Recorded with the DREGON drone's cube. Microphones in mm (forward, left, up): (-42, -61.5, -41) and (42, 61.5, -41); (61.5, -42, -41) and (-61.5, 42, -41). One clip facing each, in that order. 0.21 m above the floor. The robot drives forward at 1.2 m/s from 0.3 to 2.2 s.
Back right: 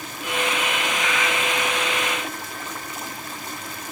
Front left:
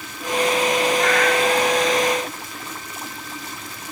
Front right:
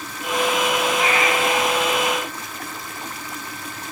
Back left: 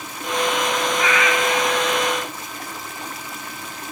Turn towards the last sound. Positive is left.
turn(degrees=30)